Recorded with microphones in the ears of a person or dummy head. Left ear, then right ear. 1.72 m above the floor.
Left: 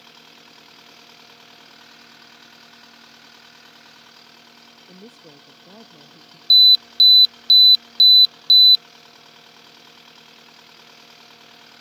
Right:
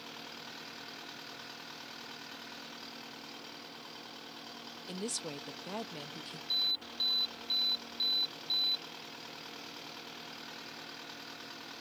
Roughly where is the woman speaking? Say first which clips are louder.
Right 8 dB; right.